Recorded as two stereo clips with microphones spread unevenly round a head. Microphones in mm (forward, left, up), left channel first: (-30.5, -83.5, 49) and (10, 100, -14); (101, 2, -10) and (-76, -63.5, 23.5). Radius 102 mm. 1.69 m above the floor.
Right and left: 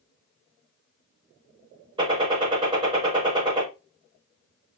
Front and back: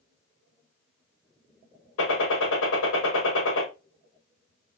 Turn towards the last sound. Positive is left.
turn(degrees=10)